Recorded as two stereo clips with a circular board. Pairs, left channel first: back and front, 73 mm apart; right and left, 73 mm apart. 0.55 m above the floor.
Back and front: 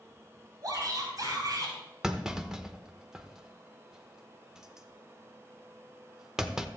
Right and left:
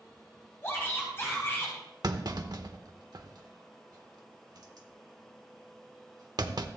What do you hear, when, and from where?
0.6 s a shout: 35° right, 3.5 m
2.0 s a clunk: 80° left, 0.8 m